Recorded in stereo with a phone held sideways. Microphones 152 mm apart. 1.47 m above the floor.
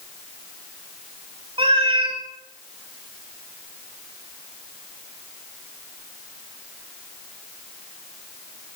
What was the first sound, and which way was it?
A cat meowing, 40° right (ahead or behind).